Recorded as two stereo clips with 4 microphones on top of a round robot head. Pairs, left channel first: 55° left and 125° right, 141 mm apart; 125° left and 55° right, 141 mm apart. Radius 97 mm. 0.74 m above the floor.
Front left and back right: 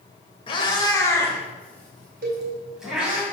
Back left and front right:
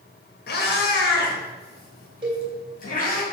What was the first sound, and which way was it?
A cat meowing, 110° left.